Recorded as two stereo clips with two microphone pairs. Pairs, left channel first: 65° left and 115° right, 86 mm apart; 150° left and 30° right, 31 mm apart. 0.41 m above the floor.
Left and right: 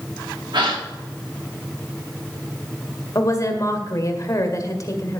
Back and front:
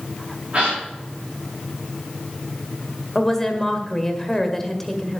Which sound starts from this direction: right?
A gasp, at 0.5 s.